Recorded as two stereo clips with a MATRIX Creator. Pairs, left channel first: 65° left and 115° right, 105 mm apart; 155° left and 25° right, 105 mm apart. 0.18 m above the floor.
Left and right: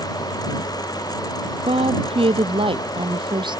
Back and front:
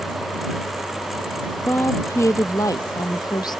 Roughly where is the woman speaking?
Behind right.